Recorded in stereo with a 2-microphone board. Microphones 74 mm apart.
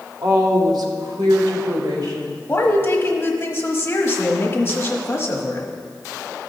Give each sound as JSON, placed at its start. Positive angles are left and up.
{"t": 0.2, "sound": "a woman speaking", "side_deg": -55, "distance_m": 1.4}
{"t": 2.5, "sound": "a woman speaking", "side_deg": 30, "distance_m": 1.1}